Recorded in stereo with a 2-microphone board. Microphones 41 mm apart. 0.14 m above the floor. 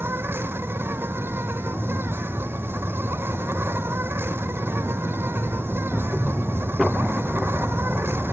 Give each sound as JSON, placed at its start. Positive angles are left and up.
{"t": 0.0, "sound": "an insect", "side_deg": -80}